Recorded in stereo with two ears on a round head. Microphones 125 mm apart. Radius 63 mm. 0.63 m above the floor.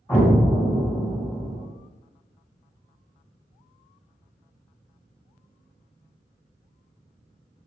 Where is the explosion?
15° left (ahead or behind), 2 m.